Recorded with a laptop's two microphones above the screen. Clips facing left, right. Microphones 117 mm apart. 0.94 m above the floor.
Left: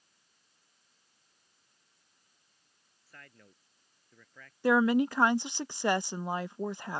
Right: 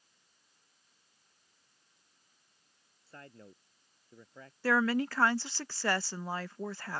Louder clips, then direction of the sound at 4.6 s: Left 4 dB; 20° left (ahead or behind).